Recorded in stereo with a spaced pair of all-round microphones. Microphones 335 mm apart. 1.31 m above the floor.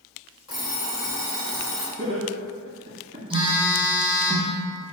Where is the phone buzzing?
15° right (ahead or behind), 0.8 m.